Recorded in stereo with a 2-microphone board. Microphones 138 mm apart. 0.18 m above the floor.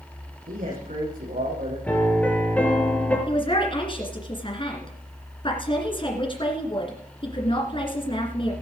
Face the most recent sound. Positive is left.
turn(degrees=40)  # may be behind; listen again after turning